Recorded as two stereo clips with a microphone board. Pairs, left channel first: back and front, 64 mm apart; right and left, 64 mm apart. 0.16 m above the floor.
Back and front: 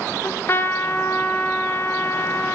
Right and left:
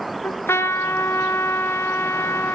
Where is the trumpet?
135° right, 2 m.